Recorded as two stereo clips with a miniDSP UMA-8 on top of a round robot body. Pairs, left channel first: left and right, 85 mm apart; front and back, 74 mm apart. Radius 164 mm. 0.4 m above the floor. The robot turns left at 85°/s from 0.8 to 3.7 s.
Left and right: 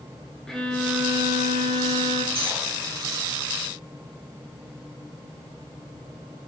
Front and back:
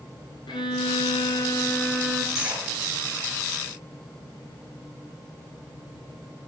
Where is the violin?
5° left, 2.0 m; by 2.2 s 115° right, 2.0 m.